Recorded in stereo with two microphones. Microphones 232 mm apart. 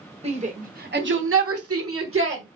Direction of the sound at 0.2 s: 25° right (ahead or behind).